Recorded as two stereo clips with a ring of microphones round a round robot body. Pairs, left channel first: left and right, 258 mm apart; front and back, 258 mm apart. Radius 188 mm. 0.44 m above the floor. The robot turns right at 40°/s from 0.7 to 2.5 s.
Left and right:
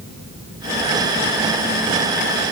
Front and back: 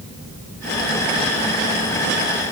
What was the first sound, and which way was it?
Only background noise.